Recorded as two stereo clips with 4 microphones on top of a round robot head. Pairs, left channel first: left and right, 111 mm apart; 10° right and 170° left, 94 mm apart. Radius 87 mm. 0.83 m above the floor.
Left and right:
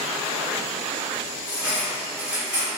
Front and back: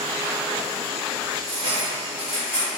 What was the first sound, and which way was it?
Cutlery clinking, 170° right.